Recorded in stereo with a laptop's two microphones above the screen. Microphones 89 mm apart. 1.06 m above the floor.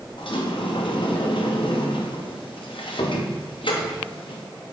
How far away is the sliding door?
About 0.8 m.